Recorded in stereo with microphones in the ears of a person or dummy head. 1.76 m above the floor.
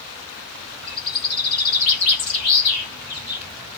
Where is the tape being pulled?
I don't hear tape being pulled.